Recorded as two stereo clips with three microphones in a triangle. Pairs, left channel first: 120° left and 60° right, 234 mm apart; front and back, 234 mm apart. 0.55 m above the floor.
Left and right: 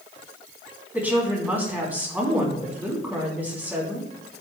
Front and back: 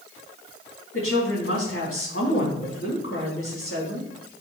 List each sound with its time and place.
0.9 s a woman speaking: 25° left, 4.5 m